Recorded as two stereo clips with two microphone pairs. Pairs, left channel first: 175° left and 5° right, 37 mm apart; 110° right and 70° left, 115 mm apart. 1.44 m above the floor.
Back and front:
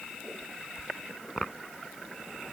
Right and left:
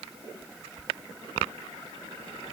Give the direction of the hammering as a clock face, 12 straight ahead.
I don't hear hammering.